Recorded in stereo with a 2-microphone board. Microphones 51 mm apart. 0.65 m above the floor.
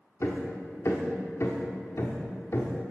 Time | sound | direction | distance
0.2 | hammering | 65° left (ahead or behind) | 1.0 m